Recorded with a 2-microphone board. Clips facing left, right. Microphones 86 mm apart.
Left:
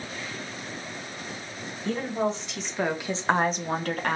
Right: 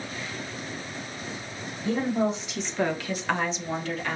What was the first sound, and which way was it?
A woman speaking, 15° right (ahead or behind).